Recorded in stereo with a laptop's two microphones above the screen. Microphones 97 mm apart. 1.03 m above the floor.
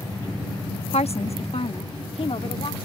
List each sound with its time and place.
0.9 s a woman speaking: 80° left; by 2.9 s 70° left (ahead or behind)